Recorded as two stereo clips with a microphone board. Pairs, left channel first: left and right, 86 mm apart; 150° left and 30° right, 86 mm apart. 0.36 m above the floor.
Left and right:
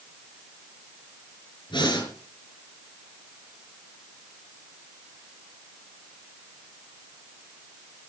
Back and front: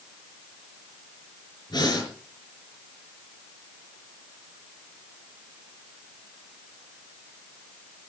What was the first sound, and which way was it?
Breathing, 115° left.